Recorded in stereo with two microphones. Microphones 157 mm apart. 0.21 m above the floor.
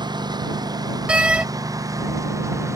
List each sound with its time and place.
0.0 s a lawn mower: 25° right (ahead or behind); by 2.8 s 20° right (ahead or behind)
1.1 s a door slam: 5° right (ahead or behind)